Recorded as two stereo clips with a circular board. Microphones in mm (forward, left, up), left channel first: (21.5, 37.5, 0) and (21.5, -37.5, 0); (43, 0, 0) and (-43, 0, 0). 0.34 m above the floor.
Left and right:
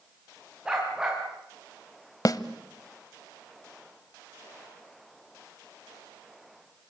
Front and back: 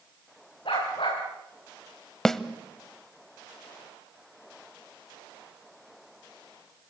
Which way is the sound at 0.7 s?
10° right.